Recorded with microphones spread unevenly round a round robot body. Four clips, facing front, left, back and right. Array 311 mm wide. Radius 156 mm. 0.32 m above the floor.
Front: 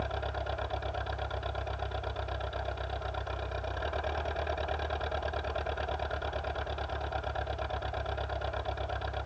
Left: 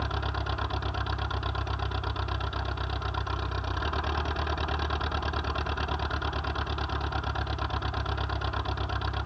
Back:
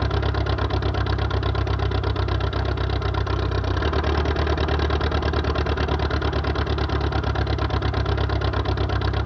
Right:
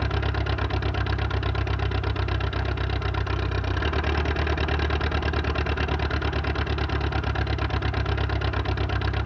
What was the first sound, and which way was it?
An engine running, 155° right.